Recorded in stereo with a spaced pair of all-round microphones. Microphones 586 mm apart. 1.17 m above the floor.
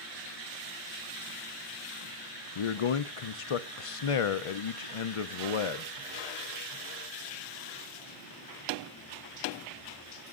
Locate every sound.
2.5 s a man speaking: 60° left (ahead or behind), 0.6 m